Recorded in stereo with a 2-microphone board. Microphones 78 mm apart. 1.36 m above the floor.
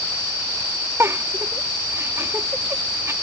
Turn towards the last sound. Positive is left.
turn(degrees=-35)  # may be behind; listen again after turning